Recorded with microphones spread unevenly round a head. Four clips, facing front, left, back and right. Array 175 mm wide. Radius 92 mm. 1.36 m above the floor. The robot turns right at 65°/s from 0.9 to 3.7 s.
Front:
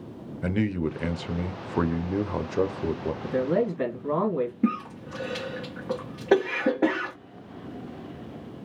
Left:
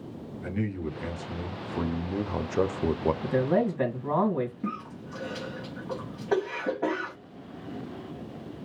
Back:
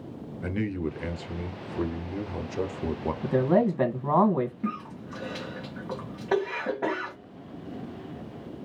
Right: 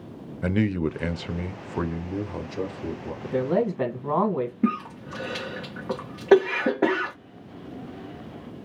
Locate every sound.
0.4 s a man speaking: 70° right, 0.8 m; by 3.1 s 75° left, 0.8 m
3.2 s a man speaking: 170° left, 1.8 m; by 4.5 s 160° right, 1.8 m
4.6 s a cough: 60° right, 1.1 m